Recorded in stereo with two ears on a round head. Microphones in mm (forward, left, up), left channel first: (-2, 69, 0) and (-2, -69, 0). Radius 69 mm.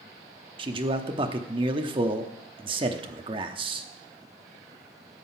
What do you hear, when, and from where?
0.6 s a man speaking: 35° right (ahead or behind), 0.8 m